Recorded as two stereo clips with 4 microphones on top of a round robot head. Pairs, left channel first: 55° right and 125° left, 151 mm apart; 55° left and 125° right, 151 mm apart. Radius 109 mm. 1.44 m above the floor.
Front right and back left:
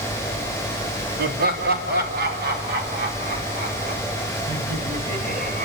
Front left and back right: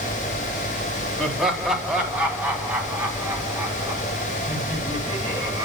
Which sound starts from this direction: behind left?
Laughter, at 1.2 s.